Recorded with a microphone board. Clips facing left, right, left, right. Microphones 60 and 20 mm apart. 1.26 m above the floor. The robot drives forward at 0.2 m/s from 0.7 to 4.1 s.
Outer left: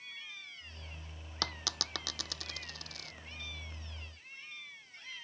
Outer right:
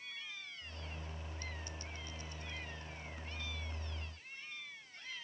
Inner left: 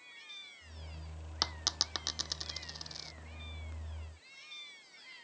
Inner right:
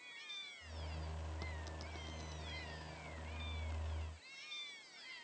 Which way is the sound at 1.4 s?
75° left (ahead or behind).